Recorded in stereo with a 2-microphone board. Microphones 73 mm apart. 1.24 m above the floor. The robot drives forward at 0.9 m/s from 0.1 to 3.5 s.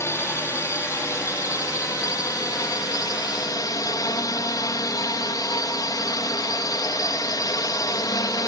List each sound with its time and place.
0.0 s a drone: 40° left (ahead or behind); by 8.5 s 60° left (ahead or behind)